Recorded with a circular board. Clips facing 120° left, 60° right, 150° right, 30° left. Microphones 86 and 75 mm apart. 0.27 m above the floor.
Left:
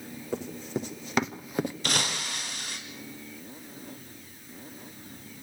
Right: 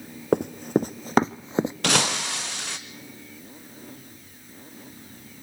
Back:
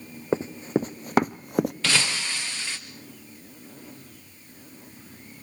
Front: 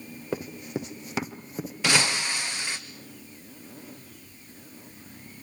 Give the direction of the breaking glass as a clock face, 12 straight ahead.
1 o'clock.